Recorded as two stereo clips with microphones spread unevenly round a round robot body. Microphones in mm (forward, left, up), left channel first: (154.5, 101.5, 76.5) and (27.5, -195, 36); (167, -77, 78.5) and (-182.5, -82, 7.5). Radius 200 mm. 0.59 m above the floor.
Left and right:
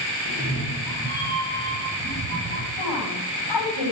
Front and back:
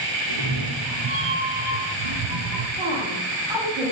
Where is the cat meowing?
Straight behind, 7 m; by 2.7 s 175° left, 6 m.